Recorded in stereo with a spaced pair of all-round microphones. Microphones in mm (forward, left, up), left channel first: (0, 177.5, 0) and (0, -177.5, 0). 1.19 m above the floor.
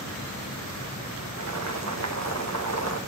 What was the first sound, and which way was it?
Boiling, 50° right (ahead or behind).